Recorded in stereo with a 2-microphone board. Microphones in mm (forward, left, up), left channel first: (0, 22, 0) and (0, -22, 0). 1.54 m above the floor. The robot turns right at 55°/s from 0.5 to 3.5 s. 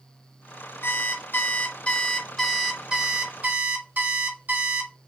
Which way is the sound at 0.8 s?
85° left.